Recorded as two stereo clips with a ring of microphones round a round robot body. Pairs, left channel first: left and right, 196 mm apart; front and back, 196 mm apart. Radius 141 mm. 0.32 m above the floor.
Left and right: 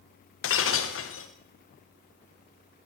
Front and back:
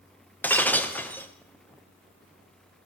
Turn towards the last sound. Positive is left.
turn(degrees=80)